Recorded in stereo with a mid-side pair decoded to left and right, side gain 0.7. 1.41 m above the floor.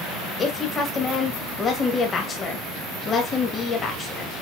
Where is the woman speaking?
35° left, 2 m.